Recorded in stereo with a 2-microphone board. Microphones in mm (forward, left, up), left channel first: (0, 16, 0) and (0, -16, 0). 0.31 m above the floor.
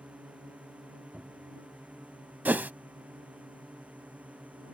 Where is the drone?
45° right (ahead or behind); by 4.8 s 55° right (ahead or behind).